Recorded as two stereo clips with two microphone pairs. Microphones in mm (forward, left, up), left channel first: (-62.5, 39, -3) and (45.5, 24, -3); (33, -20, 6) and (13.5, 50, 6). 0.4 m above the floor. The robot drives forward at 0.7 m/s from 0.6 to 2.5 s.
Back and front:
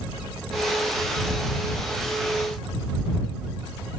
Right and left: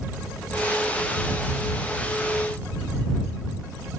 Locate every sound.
Only background noise.